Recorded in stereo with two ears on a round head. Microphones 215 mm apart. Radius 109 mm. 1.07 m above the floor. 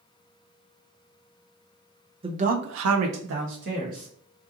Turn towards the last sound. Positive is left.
turn(degrees=-35)  # may be behind; listen again after turning